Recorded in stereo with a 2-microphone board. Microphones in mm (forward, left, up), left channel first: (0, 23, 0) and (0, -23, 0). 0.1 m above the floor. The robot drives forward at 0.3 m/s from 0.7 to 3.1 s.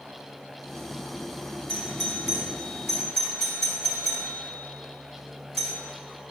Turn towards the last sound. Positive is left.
turn(degrees=10)  # may be behind; listen again after turning